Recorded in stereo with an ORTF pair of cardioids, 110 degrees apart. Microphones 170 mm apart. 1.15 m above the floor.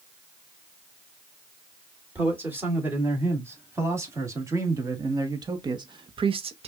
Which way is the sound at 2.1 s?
10° right.